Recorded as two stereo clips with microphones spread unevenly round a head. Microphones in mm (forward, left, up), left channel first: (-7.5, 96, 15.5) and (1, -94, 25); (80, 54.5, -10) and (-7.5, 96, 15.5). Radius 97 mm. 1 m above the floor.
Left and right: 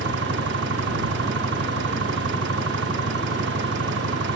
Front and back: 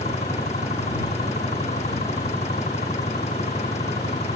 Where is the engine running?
55° right.